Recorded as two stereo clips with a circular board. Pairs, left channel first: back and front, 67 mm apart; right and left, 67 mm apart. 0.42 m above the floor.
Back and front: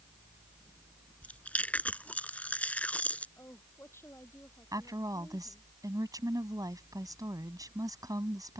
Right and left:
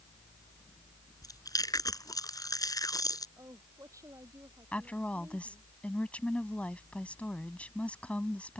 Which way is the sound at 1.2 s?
110° right.